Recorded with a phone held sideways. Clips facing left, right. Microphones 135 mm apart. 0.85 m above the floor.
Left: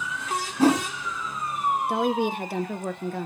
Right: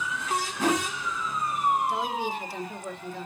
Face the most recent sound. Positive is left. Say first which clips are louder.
# left 5 dB
turn(degrees=60)  # may be behind; listen again after turning